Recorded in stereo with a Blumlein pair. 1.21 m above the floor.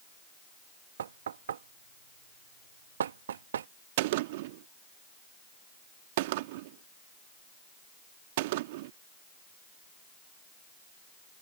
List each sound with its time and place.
1.0 s knocking: 65° right
4.0 s a gunshot: 50° right